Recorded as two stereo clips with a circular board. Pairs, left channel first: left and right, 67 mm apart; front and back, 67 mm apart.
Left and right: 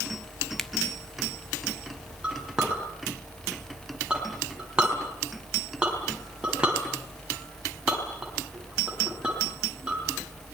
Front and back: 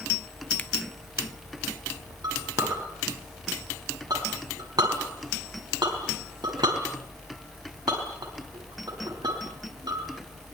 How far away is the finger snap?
About 1.0 m.